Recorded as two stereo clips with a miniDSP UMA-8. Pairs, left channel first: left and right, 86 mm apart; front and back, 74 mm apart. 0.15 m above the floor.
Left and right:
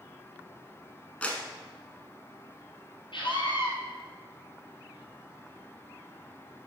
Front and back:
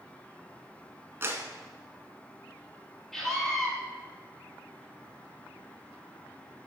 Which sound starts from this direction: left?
A scream, at 3.1 s.